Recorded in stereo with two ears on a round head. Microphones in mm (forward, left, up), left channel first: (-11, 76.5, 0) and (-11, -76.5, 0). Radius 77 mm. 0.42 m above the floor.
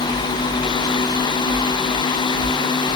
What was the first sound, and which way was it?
Only background noise.